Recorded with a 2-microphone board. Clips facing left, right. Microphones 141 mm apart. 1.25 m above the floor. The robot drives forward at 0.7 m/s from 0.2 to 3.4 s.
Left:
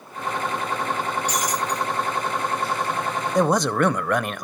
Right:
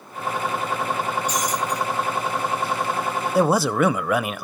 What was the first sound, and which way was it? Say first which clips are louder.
Breaking glass: right 1 dB; 85° left.